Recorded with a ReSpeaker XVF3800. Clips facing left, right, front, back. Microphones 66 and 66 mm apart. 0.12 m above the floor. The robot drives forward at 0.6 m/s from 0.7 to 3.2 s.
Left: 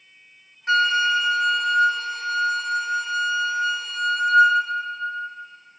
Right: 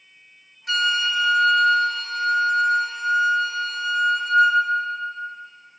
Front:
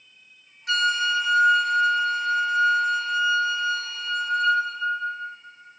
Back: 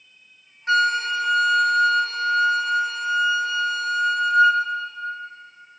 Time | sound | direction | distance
0.7 | a flute | 140° left | 0.5 m